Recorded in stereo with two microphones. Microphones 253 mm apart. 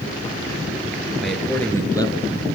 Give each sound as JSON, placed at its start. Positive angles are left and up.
{"t": 1.2, "sound": "a man speaking", "side_deg": 0, "distance_m": 2.0}